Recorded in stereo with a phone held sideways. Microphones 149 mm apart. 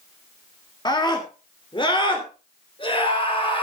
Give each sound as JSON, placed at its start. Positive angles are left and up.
{"t": 0.8, "sound": "a scream", "side_deg": 30, "distance_m": 2.0}